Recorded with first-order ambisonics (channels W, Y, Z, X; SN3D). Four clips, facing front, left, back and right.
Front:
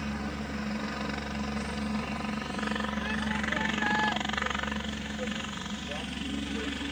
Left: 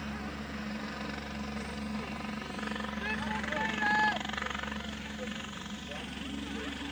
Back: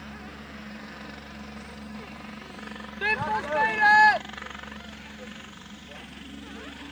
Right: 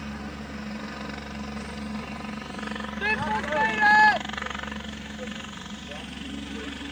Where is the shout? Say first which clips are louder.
Right 11 dB, back 5 dB; 140° right.